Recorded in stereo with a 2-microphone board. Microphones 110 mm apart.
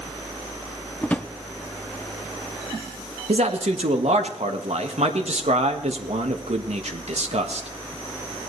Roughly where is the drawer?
Centre.